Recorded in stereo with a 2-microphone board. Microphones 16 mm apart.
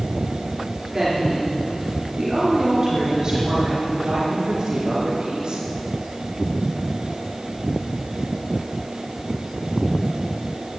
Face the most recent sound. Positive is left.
turn(degrees=-55)  # may be behind; listen again after turning